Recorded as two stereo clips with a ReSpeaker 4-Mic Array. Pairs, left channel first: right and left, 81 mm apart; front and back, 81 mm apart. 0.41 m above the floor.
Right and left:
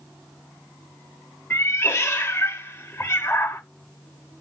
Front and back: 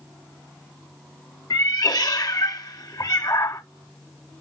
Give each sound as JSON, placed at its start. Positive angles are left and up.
{"t": 1.5, "sound": "a cat meowing", "azimuth_deg": -35, "distance_m": 0.5}